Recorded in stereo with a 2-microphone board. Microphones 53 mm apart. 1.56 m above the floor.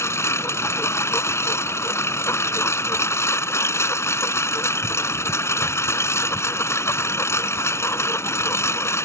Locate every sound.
0.0 s a lawn mower: 60° left (ahead or behind)